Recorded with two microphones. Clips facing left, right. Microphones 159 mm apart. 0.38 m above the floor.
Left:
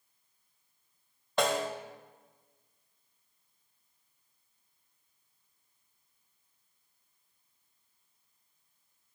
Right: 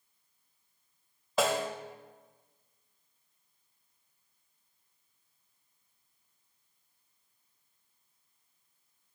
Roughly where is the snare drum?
Centre.